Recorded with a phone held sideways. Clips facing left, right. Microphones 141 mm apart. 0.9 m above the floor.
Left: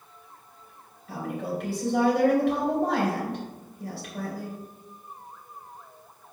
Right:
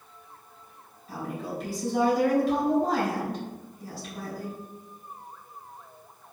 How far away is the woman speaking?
About 3.5 m.